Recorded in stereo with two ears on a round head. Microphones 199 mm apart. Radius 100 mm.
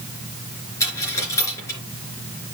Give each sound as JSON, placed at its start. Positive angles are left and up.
{"t": 0.8, "sound": "a dropped coin", "side_deg": 15, "distance_m": 3.5}